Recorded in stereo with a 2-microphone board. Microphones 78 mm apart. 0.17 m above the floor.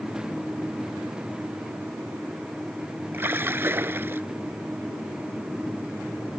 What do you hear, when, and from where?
3.1 s a splash: 30° right (ahead or behind)